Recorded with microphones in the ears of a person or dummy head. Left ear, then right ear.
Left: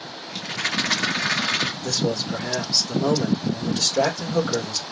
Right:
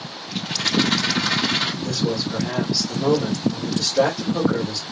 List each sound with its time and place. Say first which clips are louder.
0.3 s a rattle: right 3 dB; 60° left (ahead or behind), 2 m
1.8 s a man speaking: even; 80° left, 2.5 m